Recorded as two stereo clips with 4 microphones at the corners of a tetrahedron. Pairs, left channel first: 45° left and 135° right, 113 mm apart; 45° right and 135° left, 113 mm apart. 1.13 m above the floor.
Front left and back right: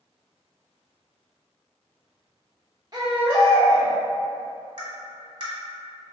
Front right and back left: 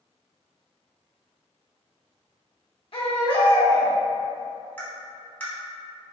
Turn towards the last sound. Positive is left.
turn(degrees=-110)